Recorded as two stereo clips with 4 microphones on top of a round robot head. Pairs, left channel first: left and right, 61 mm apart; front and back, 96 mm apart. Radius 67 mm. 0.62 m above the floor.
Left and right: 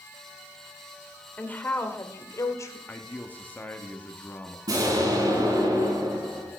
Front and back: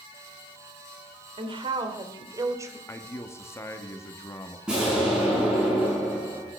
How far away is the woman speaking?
About 2.5 m.